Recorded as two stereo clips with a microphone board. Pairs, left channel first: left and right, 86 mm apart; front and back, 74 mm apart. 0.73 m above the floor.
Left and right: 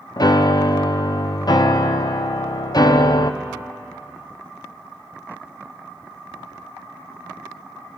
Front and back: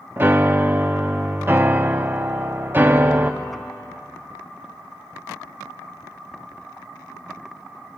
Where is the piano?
120° left, 0.5 m.